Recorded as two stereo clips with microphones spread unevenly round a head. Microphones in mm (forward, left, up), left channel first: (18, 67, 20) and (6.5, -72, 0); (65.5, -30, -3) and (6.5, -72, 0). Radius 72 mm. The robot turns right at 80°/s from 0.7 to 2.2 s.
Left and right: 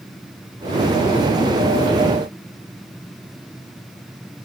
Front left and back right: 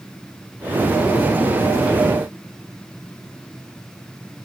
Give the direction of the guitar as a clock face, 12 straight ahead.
No guitar in this recording.